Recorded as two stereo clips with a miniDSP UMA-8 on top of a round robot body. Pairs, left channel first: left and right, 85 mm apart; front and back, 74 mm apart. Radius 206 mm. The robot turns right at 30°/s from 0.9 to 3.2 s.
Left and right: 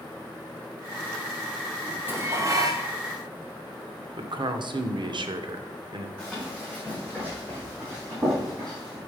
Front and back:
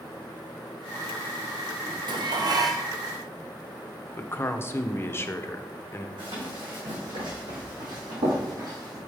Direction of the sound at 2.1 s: 160° right.